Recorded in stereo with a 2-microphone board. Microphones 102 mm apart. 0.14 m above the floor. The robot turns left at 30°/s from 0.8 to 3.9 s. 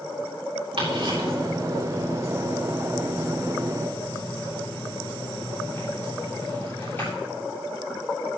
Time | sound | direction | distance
0.8 | ticking | 70° right (ahead or behind) | 7.5 m